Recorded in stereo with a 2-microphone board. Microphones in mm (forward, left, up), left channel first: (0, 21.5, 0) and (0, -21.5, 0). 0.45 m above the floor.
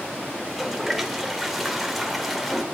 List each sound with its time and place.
0.4 s a toilet flushing: centre (ahead or behind), 1.9 m